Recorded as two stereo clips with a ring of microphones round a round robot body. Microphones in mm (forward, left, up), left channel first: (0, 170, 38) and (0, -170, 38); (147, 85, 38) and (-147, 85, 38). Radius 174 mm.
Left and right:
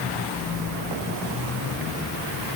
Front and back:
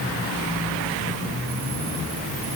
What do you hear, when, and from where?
Only background noise.